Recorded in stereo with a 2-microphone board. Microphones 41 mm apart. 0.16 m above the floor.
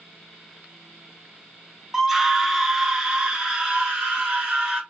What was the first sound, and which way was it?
A scream, 5° right (ahead or behind).